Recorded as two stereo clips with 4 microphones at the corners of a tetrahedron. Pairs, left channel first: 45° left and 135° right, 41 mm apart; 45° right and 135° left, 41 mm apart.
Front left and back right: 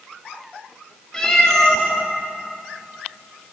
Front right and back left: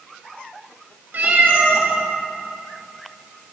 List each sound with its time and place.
1.1 s a cat meowing: 115° left, 2.0 m